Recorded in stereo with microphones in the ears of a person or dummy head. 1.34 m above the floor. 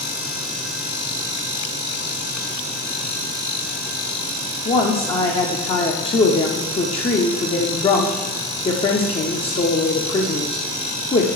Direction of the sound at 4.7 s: 25° left (ahead or behind).